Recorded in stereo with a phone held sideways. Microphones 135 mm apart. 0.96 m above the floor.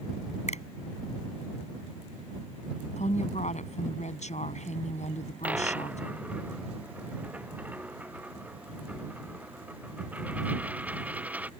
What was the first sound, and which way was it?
A finger snap, 55° left (ahead or behind).